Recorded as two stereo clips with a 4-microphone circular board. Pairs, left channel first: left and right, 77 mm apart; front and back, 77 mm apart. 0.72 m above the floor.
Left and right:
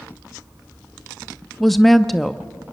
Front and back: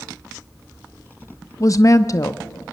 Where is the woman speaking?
Straight ahead, 0.6 m.